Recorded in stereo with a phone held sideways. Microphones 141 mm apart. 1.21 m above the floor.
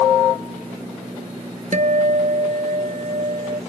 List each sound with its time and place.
1.7 s a guitar: 55° right (ahead or behind)